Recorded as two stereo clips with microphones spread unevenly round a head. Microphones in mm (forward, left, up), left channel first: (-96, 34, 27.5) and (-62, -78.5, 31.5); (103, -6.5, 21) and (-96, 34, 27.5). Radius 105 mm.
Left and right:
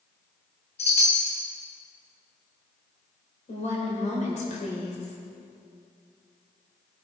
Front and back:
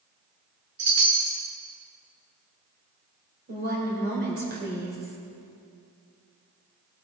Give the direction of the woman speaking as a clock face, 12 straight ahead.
8 o'clock.